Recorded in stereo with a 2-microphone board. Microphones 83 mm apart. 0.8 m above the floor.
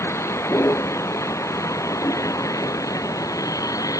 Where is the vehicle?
30° left (ahead or behind); by 4.0 s 40° left (ahead or behind).